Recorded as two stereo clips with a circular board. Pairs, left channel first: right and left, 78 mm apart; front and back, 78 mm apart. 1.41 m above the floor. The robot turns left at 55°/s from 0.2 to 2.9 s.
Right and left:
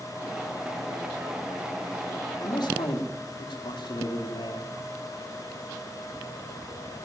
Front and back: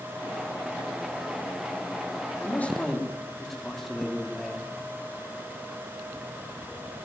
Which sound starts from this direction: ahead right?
A man speaking, at 2.4 s.